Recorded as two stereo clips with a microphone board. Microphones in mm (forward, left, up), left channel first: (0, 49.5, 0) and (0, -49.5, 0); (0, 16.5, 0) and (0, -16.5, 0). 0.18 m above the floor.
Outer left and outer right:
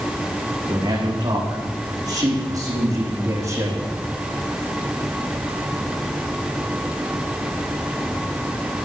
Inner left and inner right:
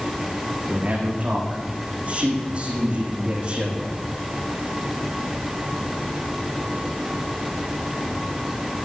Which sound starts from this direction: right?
A man speaking, at 0.7 s.